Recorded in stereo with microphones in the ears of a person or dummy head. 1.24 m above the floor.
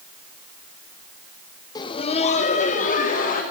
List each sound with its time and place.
1.8 s laughter: 20° left (ahead or behind), 0.5 m; by 3.4 s 45° left (ahead or behind), 1.6 m